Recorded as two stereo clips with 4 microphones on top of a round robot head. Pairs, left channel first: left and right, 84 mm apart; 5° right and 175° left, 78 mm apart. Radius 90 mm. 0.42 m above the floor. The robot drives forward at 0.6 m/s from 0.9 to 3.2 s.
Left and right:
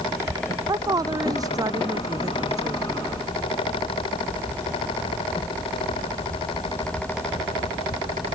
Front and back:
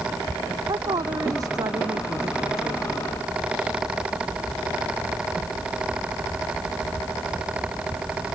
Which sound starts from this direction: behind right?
A woman speaking, at 0.7 s.